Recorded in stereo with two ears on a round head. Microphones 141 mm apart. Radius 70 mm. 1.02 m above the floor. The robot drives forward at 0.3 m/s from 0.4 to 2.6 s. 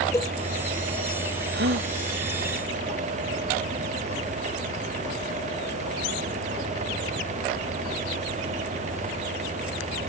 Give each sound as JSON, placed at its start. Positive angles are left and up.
{"t": 0.1, "sound": "a cowbell", "side_deg": 15}
{"t": 1.5, "sound": "a gasp", "side_deg": -75}